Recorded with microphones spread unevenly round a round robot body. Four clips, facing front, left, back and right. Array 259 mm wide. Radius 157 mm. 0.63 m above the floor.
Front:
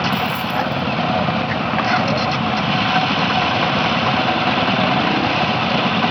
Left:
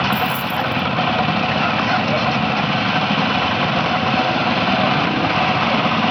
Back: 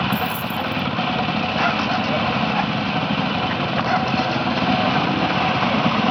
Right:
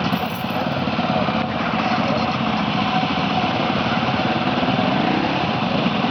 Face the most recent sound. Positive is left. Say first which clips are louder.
# left 2 dB, front 3 dB
turn(degrees=155)